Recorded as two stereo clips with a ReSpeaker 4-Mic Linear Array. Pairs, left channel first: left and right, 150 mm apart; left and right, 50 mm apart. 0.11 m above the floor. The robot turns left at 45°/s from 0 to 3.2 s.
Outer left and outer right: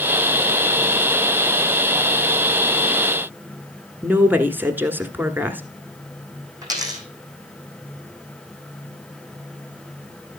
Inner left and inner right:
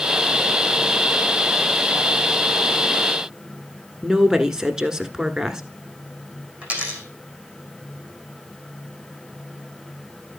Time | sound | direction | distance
4.0 | a woman speaking | 15° right (ahead or behind) | 1.1 m
6.6 | a dropped coin | 25° right (ahead or behind) | 3 m